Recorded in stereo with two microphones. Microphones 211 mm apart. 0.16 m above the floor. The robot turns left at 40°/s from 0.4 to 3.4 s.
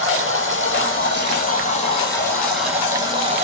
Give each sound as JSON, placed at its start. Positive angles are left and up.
{"t": 0.0, "sound": "running water", "azimuth_deg": 85, "distance_m": 1.2}